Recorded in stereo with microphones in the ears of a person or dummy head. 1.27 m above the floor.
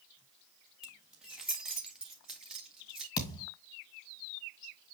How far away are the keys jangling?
About 1.2 m.